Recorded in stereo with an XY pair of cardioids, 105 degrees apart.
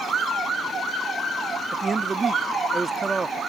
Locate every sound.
1.7 s a man speaking: 25° right